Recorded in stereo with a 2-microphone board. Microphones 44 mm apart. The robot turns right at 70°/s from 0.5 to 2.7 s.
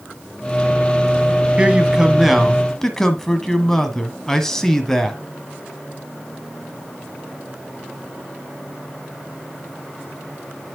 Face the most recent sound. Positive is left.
turn(degrees=20)